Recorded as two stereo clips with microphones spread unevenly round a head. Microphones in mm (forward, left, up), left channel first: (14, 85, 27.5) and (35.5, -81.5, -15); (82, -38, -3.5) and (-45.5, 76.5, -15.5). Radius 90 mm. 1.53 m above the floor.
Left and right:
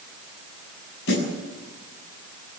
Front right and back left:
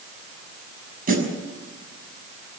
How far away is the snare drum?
About 6.5 m.